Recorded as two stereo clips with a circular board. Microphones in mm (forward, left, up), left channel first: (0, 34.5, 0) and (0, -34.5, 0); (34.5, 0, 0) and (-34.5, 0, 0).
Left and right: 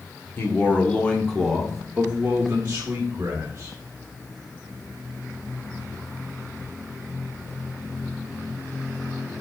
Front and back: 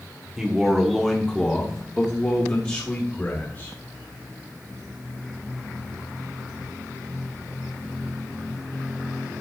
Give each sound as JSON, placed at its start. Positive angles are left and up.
{"t": 0.4, "sound": "a man speaking", "azimuth_deg": 100, "distance_m": 1.5}